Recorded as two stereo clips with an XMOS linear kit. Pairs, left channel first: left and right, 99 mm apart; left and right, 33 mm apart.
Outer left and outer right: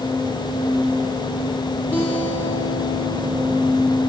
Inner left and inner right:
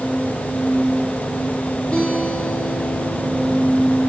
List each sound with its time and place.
1.9 s a guitar: 25° left (ahead or behind), 5.5 m